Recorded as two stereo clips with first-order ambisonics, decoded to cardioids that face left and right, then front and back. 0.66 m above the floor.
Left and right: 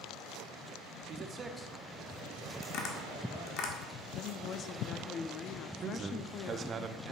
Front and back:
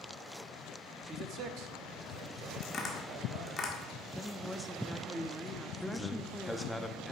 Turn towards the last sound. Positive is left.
turn(degrees=-80)